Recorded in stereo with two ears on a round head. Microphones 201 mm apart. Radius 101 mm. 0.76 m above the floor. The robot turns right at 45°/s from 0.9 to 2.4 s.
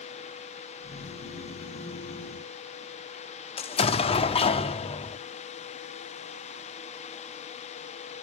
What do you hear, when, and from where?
3.6 s an explosion: 25° left (ahead or behind), 0.7 m